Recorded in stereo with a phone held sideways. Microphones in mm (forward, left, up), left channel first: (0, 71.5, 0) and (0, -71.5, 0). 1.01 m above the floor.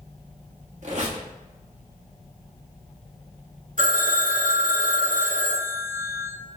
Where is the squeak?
55° right (ahead or behind), 1.2 m.